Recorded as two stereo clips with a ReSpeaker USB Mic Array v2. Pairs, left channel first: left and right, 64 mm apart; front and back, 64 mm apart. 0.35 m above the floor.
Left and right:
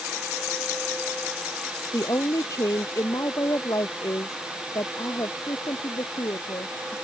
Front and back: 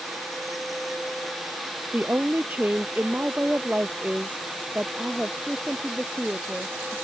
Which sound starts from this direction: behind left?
A woman speaking, at 1.9 s.